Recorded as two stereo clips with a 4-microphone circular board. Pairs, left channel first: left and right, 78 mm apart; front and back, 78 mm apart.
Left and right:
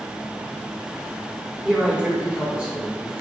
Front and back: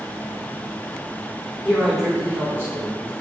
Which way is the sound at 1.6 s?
35° right.